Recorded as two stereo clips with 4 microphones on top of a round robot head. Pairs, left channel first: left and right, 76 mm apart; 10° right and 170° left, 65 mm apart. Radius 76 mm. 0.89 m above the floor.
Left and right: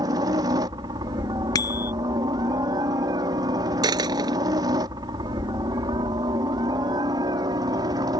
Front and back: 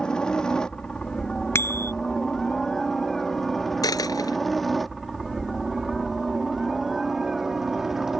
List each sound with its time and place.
0.0 s a helicopter: 85° right; by 8.2 s 105° right
1.6 s a bicycle bell: 40° left
3.8 s a dropped coin: 50° right